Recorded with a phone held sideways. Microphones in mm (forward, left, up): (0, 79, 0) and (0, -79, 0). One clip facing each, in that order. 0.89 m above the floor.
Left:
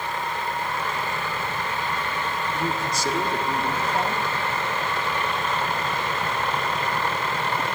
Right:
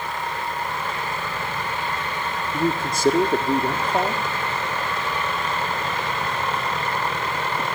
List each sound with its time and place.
2.5 s a man speaking: 55° right (ahead or behind), 1.8 m